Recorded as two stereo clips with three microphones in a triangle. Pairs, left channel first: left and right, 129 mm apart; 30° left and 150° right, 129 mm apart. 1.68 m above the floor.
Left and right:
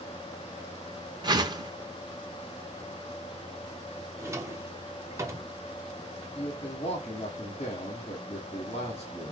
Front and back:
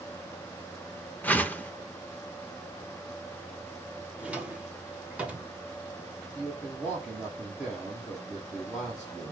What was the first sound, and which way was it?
A whoosh, 45° right.